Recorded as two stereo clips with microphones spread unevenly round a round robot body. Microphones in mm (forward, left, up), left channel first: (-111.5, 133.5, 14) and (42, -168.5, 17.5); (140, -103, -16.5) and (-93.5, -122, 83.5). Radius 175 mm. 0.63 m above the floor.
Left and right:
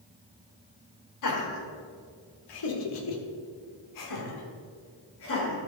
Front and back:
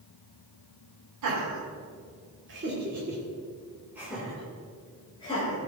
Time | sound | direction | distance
1.2 | laughter | 145° left | 2.5 m